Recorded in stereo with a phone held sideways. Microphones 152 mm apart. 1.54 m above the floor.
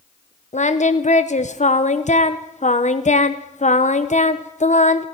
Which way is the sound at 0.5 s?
50° left (ahead or behind).